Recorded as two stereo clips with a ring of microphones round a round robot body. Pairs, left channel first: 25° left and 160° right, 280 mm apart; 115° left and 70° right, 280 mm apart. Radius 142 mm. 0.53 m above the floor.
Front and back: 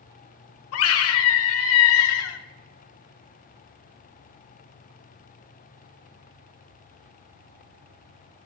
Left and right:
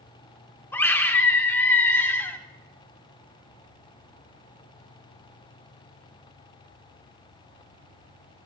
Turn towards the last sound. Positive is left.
turn(degrees=30)